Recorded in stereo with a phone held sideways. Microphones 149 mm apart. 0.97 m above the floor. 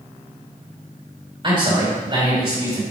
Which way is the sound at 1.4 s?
35° right (ahead or behind).